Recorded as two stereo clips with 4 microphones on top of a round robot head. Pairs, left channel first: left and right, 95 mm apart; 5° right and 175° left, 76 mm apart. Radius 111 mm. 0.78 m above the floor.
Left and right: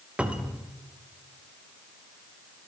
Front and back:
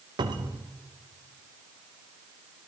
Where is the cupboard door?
170° right, 1.4 m.